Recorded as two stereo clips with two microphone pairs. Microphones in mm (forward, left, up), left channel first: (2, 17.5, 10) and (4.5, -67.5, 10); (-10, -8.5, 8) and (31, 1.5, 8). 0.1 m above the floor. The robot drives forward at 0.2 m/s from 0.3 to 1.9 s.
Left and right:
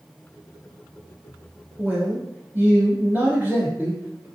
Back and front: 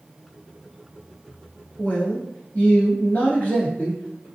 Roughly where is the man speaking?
Behind right.